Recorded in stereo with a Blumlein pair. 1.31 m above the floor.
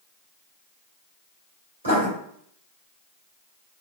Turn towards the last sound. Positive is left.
turn(degrees=-65)